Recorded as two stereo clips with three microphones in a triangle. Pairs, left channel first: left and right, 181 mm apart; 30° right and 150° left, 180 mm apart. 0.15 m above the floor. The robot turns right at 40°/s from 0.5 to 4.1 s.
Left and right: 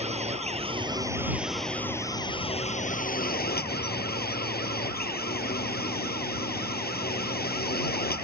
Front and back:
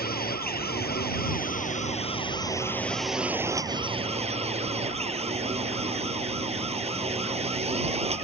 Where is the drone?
40° right; by 8.2 s 100° left.